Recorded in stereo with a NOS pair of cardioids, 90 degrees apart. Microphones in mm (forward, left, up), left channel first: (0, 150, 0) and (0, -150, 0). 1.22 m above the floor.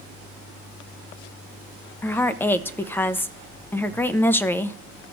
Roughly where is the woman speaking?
Ahead.